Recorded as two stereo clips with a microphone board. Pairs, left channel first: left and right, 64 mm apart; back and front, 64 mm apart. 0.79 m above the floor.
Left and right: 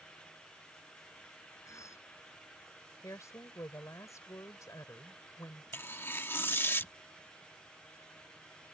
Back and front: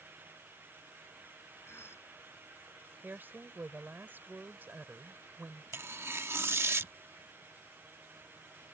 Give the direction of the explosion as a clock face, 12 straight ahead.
I don't hear an explosion.